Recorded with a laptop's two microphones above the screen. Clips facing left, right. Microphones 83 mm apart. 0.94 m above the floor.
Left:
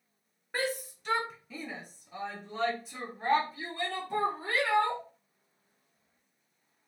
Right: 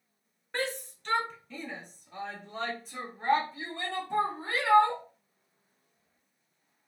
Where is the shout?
10° left (ahead or behind), 0.9 m; by 5.0 s centre (ahead or behind), 2 m.